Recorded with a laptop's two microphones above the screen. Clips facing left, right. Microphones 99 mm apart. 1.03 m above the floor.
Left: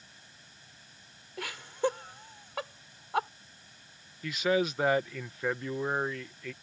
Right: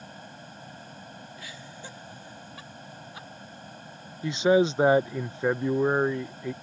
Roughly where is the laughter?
Left.